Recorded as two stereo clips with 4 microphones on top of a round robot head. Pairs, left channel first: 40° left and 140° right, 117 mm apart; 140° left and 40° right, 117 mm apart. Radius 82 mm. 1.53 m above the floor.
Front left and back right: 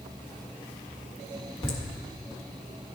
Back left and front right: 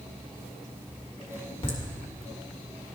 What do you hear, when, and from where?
1.6 s laughter: 95° left, 2 m